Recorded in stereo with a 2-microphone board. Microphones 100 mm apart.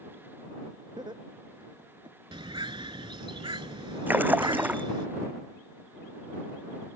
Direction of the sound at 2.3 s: 55° right (ahead or behind).